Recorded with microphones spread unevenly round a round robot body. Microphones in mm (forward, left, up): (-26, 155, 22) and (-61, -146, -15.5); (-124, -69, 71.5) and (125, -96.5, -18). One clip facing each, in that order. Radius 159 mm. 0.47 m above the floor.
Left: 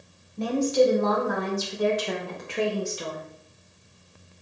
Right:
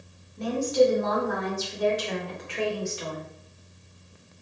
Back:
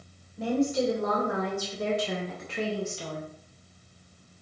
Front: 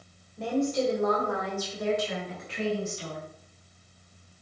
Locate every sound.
0.4 s a woman speaking: 75° left, 2.5 m; by 3.2 s 140° left, 2 m